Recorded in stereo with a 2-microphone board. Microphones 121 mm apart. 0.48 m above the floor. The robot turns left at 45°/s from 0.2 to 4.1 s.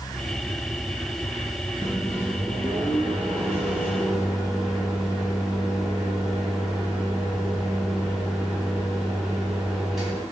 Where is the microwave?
75° right, 0.9 m; by 10.2 s 175° right, 0.9 m.